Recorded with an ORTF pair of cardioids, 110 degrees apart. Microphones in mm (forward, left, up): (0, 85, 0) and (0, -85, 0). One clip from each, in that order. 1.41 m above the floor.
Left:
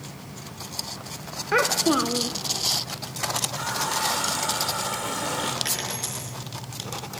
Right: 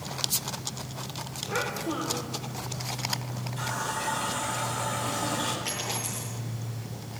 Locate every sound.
1.5 s a child speaking: 60° left, 0.7 m
3.6 s a running tap: 35° left, 3 m
5.7 s a dropped coin: 60° left, 6 m